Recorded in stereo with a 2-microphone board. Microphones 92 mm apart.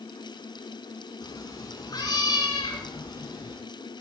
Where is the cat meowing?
40° left (ahead or behind), 4 m; by 3.6 s 50° left (ahead or behind), 6 m.